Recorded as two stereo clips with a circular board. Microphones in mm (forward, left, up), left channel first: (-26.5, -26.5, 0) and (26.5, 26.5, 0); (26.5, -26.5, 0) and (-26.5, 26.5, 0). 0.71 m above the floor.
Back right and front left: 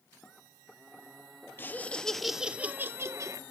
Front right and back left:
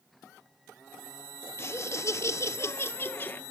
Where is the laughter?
85° right, 1.0 m; by 3.4 s 15° left, 1.2 m.